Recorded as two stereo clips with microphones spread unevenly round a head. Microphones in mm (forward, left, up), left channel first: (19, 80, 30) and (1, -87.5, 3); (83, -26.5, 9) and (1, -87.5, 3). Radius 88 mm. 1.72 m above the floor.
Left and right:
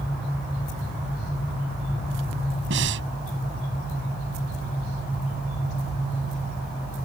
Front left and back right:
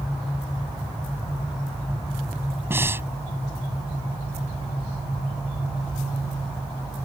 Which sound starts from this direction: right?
Breathing, at 2.7 s.